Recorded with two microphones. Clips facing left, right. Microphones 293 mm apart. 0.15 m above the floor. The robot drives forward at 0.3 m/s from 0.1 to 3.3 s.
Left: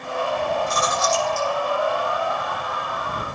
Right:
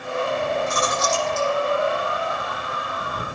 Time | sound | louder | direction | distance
0.7 | chewing | even | 20° left (ahead or behind) | 6.5 m